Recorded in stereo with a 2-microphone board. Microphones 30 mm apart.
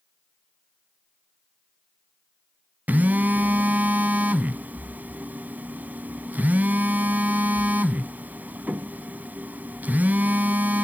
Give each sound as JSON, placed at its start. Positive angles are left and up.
{"t": 2.9, "sound": "a phone buzzing", "side_deg": -65, "distance_m": 0.5}